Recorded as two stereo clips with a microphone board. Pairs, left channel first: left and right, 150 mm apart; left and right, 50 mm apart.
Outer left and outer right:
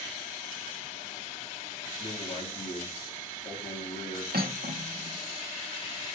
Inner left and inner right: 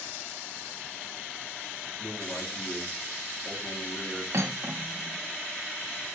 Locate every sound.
2.0 s a man speaking: 40° left (ahead or behind), 2.5 m
4.3 s cutlery clinking: 80° right, 1.0 m